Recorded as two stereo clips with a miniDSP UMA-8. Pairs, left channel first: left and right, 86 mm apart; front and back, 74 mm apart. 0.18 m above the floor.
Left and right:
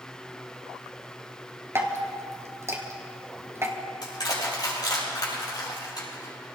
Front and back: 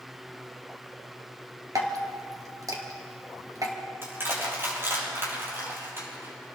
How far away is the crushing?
About 5 m.